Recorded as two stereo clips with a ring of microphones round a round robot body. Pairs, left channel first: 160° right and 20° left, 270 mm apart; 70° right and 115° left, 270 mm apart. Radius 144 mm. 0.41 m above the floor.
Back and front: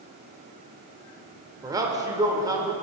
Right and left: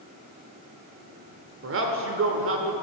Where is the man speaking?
95° left, 1.1 m.